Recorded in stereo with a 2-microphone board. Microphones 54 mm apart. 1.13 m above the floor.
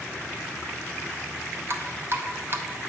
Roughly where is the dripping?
Right.